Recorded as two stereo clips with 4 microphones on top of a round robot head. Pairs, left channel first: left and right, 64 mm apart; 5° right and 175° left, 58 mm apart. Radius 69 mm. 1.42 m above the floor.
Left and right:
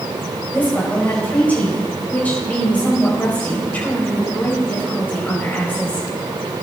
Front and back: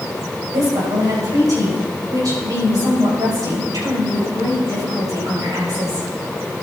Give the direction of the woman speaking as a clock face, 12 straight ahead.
7 o'clock.